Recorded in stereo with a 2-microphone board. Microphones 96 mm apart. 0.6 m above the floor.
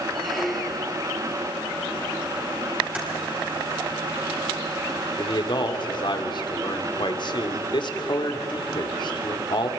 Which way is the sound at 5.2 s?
55° left (ahead or behind).